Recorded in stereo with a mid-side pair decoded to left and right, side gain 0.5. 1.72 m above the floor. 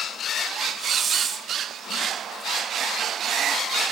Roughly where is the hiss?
Ahead right.